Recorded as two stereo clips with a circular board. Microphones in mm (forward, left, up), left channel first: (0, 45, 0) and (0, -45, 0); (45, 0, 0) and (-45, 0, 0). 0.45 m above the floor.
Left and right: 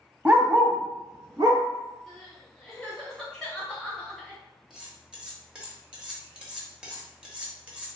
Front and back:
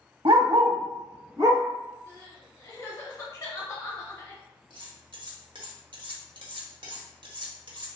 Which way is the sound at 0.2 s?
165° right.